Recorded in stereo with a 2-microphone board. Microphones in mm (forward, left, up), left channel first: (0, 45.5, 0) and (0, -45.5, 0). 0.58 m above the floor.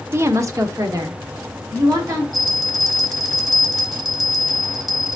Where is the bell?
Centre (ahead or behind), 0.9 m.